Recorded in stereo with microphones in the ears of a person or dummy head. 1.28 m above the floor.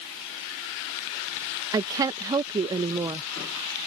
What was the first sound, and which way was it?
A woman speaking, 20° right (ahead or behind).